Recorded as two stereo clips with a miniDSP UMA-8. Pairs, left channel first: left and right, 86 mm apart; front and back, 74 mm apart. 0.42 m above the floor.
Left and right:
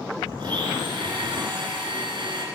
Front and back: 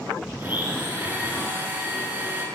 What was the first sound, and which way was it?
A blender, 115° right.